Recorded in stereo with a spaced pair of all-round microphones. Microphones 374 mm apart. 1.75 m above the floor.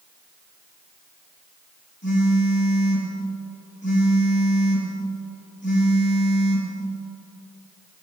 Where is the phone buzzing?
30° left (ahead or behind), 3.5 m.